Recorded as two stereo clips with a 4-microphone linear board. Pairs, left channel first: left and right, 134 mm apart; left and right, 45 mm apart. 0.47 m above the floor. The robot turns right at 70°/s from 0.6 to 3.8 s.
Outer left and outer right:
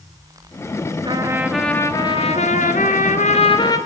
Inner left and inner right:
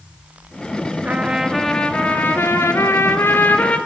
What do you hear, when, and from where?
1.1 s a trumpet: 40° right, 1.5 m; by 3.8 s 155° left, 1.5 m